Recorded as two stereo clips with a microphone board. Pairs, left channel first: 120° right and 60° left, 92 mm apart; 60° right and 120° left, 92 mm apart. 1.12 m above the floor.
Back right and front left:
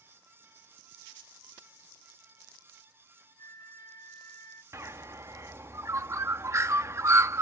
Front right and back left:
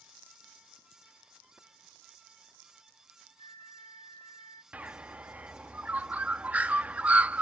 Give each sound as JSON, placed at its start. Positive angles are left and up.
{"t": 3.4, "sound": "a flute", "azimuth_deg": -70}
{"t": 4.7, "sound": "a bird", "azimuth_deg": 60}